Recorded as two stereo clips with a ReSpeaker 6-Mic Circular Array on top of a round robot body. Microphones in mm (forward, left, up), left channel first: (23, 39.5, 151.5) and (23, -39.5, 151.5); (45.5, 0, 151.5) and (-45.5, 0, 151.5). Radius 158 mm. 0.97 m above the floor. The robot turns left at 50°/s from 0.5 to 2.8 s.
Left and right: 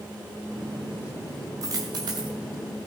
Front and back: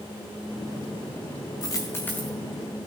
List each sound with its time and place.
1.6 s a dropped coin: 50° right, 0.5 m; by 2.4 s 85° right, 0.5 m